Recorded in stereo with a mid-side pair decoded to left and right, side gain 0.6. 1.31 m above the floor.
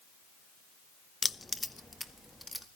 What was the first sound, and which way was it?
Keys jangling, 15° left.